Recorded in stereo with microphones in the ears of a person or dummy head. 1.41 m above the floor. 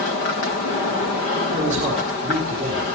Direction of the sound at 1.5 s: 45° right (ahead or behind).